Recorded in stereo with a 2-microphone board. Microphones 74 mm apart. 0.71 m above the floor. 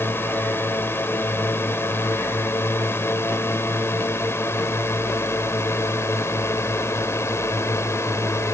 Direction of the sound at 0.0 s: 30° left (ahead or behind).